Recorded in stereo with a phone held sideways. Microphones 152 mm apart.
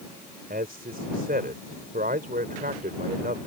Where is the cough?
I don't hear a cough.